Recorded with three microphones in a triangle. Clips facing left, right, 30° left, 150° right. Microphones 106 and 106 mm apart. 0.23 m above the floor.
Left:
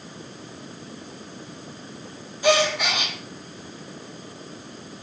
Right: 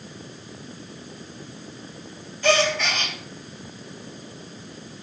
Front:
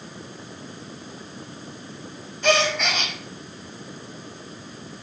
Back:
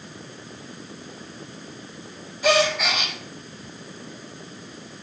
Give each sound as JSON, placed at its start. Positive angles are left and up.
{"t": 2.4, "sound": "a gasp", "azimuth_deg": 140, "distance_m": 0.6}